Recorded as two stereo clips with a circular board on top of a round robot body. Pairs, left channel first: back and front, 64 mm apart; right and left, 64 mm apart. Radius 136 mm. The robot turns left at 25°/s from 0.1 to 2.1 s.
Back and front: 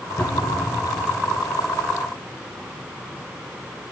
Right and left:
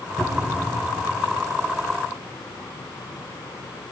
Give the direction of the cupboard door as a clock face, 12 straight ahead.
5 o'clock.